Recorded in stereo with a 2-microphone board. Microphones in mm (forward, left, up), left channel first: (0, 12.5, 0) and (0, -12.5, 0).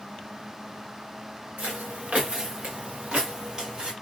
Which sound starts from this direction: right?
Footsteps, at 1.6 s.